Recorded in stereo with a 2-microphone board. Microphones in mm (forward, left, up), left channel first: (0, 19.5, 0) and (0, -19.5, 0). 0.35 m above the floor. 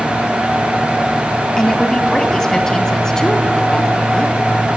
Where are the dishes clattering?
I don't hear dishes clattering.